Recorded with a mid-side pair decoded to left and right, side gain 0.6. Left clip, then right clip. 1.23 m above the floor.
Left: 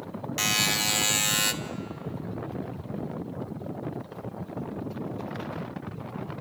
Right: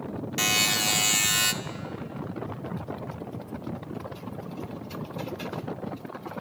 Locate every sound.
0.4 s a buzzer: 5° left, 1.2 m